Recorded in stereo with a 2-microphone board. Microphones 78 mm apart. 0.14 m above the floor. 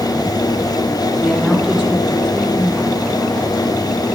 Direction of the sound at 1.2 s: 5° right (ahead or behind).